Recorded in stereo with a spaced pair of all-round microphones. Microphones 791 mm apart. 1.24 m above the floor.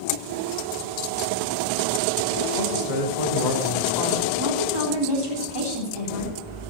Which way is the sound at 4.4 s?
30° right (ahead or behind).